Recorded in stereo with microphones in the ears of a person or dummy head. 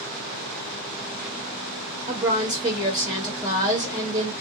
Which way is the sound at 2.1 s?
25° right (ahead or behind).